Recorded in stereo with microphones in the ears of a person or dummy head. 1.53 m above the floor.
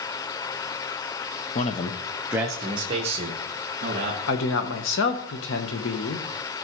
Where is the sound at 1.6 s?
55° left (ahead or behind), 0.8 m; by 4.2 s 40° right (ahead or behind), 2.5 m.